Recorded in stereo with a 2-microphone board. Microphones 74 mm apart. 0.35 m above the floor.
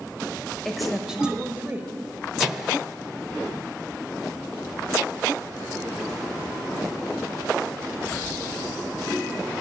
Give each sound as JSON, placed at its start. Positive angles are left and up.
{"t": 0.7, "sound": "a woman speaking", "side_deg": 5, "distance_m": 1.2}
{"t": 2.4, "sound": "a microwave", "side_deg": -5, "distance_m": 0.7}